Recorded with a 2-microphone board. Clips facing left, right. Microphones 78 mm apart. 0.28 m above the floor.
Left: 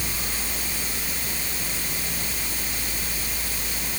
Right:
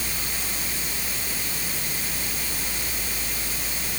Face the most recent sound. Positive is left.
No sound to turn to.